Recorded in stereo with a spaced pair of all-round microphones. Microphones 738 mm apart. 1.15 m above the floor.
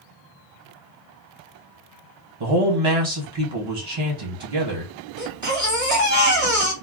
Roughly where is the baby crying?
Right.